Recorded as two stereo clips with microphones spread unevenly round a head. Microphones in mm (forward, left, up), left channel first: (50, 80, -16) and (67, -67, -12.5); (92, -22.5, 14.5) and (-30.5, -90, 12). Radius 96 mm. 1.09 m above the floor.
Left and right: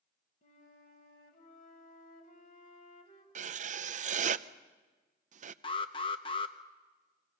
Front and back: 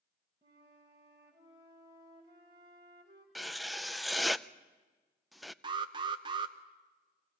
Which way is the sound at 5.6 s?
155° left.